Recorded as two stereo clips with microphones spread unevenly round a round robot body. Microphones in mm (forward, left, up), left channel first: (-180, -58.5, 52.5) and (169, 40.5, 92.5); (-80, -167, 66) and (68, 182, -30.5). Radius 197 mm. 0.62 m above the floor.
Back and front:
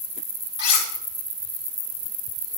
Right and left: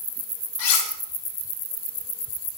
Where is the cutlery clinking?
150° right, 4.5 m.